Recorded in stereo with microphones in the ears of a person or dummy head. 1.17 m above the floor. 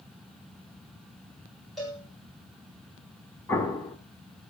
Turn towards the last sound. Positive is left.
turn(degrees=15)  # may be behind; listen again after turning